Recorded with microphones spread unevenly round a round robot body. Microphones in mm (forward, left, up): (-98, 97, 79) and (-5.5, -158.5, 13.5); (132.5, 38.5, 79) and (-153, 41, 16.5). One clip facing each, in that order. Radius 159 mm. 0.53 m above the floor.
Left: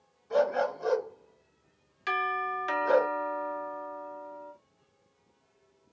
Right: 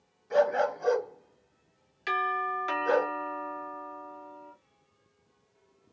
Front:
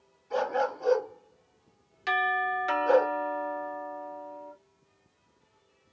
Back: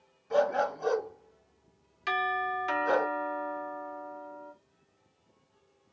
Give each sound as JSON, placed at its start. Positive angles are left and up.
{"t": 0.3, "sound": "a dog barking", "azimuth_deg": -155, "distance_m": 1.8}
{"t": 2.1, "sound": "a doorbell", "azimuth_deg": -130, "distance_m": 1.9}